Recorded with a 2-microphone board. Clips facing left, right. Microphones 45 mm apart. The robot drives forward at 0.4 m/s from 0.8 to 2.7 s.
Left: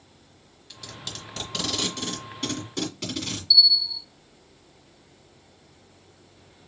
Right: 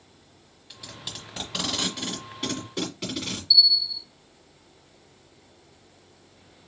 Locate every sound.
0.7 s tape being pulled: 10° right (ahead or behind), 1.5 m; by 3.4 s 5° right (ahead or behind), 2 m
3.5 s a bell: 20° right (ahead or behind), 1.5 m